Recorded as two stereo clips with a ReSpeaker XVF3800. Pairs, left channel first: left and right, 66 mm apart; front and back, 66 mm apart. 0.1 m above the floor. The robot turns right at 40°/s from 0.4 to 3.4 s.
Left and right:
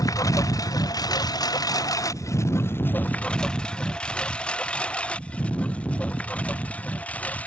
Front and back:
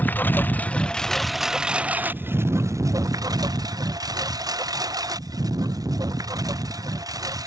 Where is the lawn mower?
65° left; by 7.5 s 155° left.